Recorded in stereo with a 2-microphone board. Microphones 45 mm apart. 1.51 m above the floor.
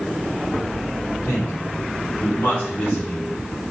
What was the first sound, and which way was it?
A man speaking, 85° left.